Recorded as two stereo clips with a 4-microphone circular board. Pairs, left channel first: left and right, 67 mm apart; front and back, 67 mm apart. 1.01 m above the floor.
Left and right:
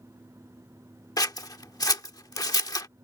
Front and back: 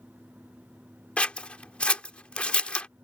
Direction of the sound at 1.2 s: 75° left.